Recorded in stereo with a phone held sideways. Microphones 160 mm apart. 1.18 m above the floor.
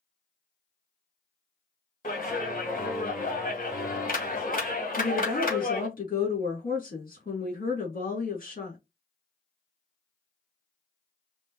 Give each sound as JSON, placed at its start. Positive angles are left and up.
{"t": 2.0, "sound": "a clap", "side_deg": 60, "distance_m": 2.0}
{"t": 5.0, "sound": "a woman speaking", "side_deg": 65, "distance_m": 3.0}